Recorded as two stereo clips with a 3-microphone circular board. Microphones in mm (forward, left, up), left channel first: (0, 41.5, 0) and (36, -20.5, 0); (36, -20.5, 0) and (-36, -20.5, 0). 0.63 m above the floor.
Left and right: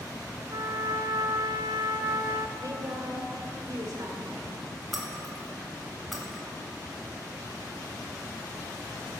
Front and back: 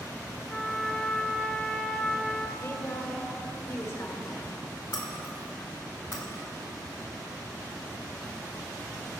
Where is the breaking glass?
30° left, 1.9 m.